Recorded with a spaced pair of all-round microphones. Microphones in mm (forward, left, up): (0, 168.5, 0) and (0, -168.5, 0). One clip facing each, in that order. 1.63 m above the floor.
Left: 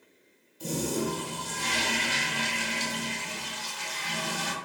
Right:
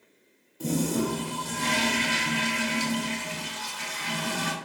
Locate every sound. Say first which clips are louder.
0.6 s a toilet flushing: right 4 dB; 65° right (ahead or behind), 0.7 m